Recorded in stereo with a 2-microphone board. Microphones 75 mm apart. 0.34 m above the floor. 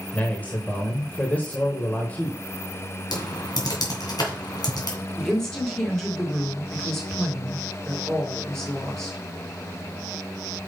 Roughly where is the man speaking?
Left.